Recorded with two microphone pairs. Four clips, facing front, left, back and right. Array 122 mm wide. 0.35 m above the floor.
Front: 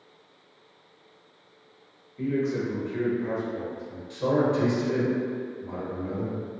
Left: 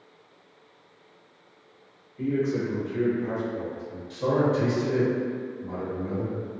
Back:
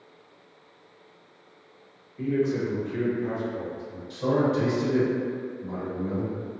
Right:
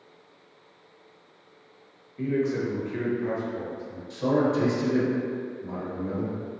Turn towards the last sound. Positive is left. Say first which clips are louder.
# even, even
turn(degrees=-5)